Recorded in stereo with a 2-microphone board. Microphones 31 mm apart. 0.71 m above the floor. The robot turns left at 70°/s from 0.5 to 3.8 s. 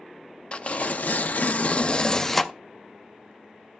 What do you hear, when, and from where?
0.5 s tearing paper: 135° left, 0.5 m; by 2.5 s 5° right, 0.5 m